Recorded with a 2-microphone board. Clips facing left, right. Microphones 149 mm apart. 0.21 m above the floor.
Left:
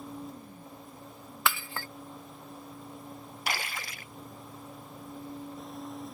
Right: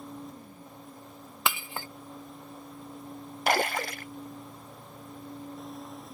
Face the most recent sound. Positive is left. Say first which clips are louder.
# right 11 dB
turn(degrees=-60)  # may be behind; listen again after turning